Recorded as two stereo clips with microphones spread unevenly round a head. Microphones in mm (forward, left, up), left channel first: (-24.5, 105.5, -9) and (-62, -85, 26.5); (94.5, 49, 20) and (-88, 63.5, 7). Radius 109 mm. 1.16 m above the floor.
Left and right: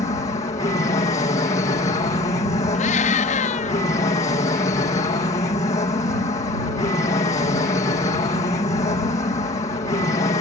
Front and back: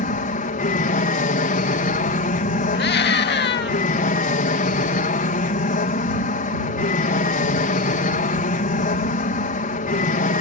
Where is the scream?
25° left.